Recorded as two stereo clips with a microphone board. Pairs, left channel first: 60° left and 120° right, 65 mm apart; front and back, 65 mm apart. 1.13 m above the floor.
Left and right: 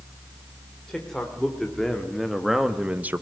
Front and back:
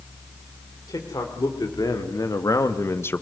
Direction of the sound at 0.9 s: 20° right.